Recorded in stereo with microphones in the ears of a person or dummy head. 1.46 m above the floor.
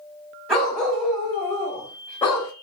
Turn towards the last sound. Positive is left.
turn(degrees=15)  # may be behind; listen again after turning